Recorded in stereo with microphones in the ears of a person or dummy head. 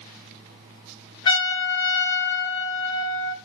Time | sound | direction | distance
1.2 | a trumpet | 30° left (ahead or behind) | 4.5 m